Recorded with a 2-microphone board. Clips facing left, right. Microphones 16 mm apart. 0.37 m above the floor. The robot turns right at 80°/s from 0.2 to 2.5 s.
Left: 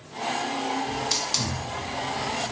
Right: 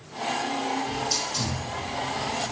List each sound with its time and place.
0.9 s a hiss: 70° left (ahead or behind), 0.8 m; by 2.5 s 20° right (ahead or behind), 0.8 m